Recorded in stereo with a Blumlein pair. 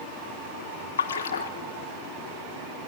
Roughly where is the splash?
Ahead left.